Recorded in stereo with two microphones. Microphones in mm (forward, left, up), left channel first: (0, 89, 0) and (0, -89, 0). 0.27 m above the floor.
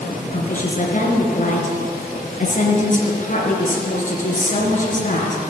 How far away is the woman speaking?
About 3.5 m.